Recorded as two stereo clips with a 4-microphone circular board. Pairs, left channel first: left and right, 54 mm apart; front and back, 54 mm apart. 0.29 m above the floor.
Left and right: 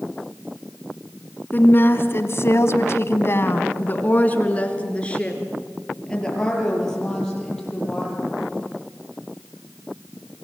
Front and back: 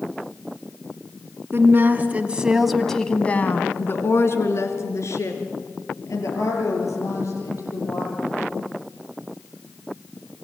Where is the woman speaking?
140° left, 2.5 m; by 8.3 s 10° left, 8.5 m.